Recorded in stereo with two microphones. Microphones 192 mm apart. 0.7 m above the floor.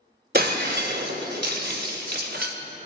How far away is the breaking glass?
About 0.7 m.